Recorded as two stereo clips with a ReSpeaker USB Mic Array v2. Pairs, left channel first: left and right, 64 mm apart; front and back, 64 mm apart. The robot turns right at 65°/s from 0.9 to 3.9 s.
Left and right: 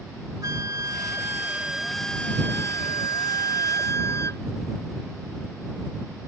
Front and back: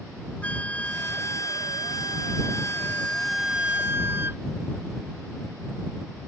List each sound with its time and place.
0.4 s a flute: 65° right; by 4.4 s 130° left